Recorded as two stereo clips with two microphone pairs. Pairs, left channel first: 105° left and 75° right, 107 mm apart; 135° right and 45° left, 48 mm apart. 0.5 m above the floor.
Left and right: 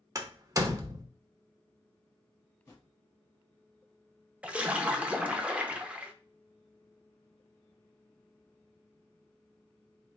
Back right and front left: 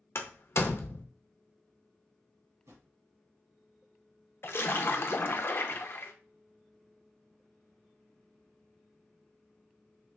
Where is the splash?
150° right, 0.5 m.